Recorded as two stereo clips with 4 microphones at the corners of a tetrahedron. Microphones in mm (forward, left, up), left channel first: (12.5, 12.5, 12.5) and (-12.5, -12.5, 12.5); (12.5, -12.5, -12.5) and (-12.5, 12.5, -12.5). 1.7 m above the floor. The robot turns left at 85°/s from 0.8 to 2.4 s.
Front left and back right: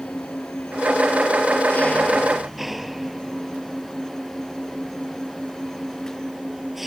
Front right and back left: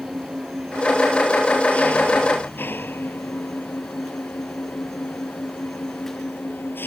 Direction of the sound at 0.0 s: 85° left.